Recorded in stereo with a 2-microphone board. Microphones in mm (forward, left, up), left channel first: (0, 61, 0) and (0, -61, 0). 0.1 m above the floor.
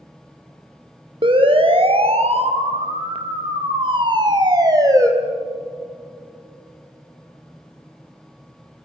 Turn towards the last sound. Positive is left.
turn(degrees=-25)  # may be behind; listen again after turning